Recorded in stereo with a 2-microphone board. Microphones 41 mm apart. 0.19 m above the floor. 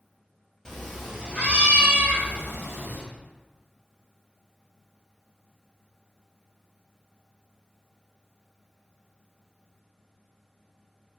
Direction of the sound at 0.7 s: 10° left (ahead or behind).